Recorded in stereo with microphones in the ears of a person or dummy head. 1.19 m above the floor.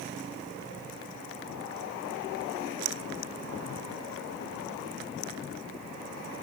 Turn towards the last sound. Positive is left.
No sound to turn to.